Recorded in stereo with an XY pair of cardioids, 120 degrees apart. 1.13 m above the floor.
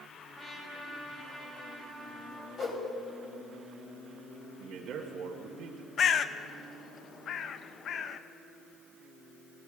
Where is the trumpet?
30° left, 3 m.